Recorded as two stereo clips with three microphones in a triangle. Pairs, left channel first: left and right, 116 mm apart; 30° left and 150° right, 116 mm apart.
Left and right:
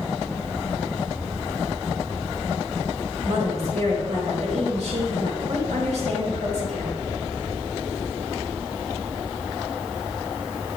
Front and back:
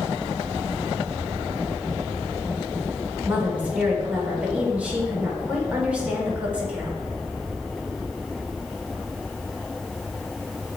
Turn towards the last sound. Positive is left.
turn(degrees=-70)